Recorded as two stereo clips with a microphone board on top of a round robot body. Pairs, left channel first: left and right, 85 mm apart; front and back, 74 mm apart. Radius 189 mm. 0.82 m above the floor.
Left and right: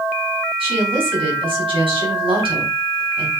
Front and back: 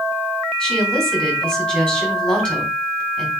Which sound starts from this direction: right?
A woman speaking, at 0.6 s.